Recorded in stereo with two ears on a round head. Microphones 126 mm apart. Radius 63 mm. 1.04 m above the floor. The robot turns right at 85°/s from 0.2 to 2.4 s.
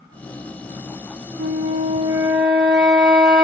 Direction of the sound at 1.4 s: 95° right.